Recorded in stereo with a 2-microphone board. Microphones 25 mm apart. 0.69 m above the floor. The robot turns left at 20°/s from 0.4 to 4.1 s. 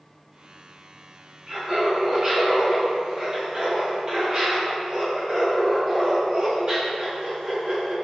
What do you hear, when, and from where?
1.5 s laughter: 70° right, 1.2 m; by 7.9 s 125° right, 1.2 m